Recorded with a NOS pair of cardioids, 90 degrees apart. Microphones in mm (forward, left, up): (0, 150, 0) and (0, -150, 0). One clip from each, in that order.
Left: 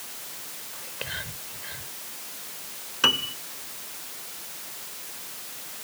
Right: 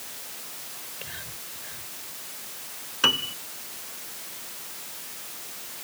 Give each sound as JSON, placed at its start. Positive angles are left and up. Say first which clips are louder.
{"t": 0.7, "sound": "whispering", "louder": "left 7 dB", "azimuth_deg": 50}
{"t": 3.0, "sound": "a piano", "louder": "even", "azimuth_deg": 0}